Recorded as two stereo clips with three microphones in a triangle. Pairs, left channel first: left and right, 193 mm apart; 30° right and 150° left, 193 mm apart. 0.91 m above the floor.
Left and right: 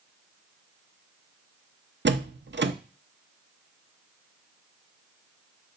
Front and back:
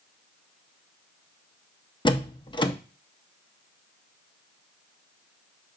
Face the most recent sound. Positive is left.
turn(degrees=-95)